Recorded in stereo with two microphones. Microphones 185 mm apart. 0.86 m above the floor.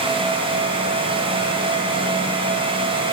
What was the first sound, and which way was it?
Only background noise.